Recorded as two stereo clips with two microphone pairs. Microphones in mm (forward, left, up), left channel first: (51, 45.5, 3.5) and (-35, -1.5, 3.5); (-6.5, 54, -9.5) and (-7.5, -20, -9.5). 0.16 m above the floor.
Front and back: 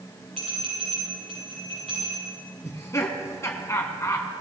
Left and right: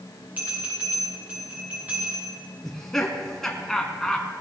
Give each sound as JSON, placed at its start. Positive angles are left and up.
{"t": 0.4, "sound": "a bell", "azimuth_deg": -160, "distance_m": 7.0}
{"t": 2.6, "sound": "laughter", "azimuth_deg": 15, "distance_m": 1.2}